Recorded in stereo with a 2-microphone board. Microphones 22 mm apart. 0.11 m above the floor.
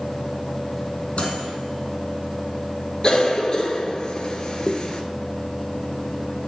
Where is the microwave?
55° left (ahead or behind), 3.5 m.